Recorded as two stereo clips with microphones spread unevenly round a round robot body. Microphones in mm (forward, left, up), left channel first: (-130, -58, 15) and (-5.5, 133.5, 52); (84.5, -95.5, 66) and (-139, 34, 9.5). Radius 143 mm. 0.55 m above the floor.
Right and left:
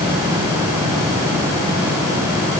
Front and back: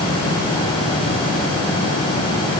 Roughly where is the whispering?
I don't hear whispering.